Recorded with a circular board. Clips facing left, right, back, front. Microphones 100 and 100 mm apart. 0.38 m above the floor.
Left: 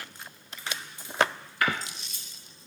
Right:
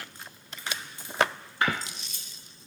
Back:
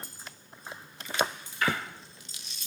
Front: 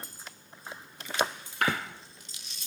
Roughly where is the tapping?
Ahead right.